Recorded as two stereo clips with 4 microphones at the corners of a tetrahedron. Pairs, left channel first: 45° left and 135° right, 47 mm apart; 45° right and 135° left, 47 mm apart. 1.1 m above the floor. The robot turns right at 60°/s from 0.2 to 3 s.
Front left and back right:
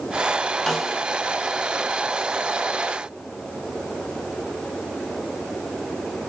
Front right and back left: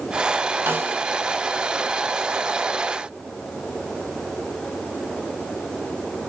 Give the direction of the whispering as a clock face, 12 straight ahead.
No whispering in this recording.